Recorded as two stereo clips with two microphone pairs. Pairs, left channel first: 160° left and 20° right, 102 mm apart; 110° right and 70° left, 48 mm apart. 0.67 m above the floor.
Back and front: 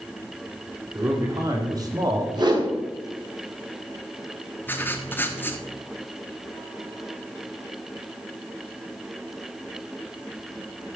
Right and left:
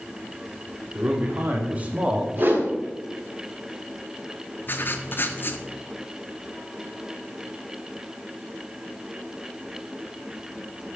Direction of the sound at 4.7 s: 140° right.